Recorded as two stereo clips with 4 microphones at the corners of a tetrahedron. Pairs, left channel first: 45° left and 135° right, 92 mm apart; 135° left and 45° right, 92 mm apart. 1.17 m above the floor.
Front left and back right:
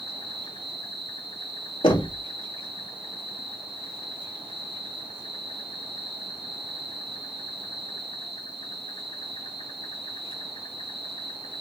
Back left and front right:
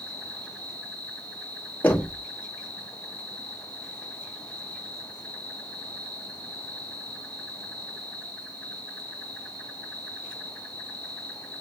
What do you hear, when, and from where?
0.0 s an insect: 50° left, 6.5 m
1.8 s knocking: 65° left, 2.5 m